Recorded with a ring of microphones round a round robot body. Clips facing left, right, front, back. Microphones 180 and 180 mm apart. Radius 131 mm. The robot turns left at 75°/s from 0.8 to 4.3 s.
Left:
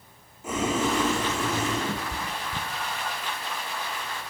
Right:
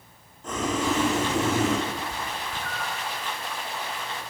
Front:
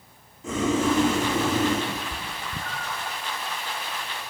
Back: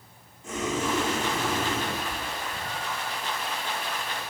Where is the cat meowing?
80° left, 3.5 m; by 3.2 s 20° right, 3.5 m.